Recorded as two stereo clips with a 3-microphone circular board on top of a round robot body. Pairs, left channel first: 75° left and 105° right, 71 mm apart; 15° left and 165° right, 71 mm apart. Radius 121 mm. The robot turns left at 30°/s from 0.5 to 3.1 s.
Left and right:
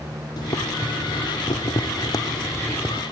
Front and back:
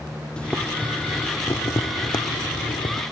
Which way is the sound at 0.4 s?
90° left.